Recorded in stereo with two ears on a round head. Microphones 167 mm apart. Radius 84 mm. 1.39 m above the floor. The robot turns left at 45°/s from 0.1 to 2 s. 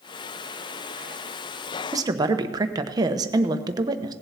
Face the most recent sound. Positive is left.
turn(degrees=-20)  # may be behind; listen again after turning